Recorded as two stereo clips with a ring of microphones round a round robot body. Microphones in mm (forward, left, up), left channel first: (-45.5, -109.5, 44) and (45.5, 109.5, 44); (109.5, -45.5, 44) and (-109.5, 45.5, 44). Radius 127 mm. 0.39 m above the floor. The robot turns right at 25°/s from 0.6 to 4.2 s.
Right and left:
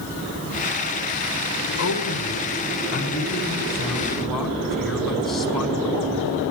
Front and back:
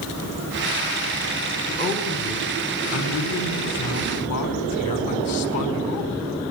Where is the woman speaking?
85° right, 4.5 m; by 6.2 s 25° right, 4.5 m.